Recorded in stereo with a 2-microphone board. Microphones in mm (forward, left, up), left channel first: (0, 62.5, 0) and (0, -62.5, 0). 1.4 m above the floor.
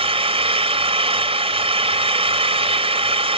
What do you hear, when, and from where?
0.0 s an engine running: 50° right (ahead or behind)